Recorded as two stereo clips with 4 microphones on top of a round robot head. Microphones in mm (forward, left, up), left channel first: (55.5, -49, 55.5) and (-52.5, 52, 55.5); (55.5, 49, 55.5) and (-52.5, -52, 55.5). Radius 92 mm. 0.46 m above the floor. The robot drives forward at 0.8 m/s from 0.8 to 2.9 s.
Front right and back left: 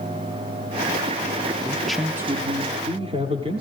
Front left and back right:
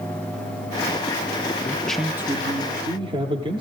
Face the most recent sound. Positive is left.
turn(degrees=180)